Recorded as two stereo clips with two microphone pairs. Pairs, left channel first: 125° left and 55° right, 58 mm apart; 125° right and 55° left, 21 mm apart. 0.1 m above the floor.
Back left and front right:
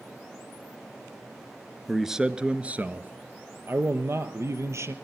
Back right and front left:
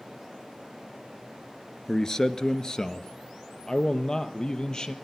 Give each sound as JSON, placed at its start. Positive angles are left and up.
{"t": 1.9, "sound": "a man speaking", "azimuth_deg": -140, "distance_m": 1.1}